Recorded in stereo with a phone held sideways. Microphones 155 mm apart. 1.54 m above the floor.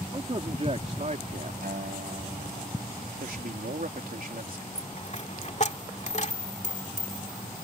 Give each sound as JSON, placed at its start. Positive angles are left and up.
{"t": 0.1, "sound": "a man speaking", "side_deg": -35}
{"t": 1.6, "sound": "a guitar", "side_deg": -65}
{"t": 3.2, "sound": "a man speaking", "side_deg": -70}
{"t": 4.8, "sound": "a dropped coin", "side_deg": 50}